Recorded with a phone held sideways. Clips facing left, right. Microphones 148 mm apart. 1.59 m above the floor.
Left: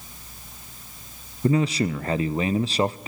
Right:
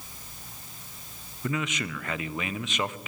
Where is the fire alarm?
No fire alarm in this recording.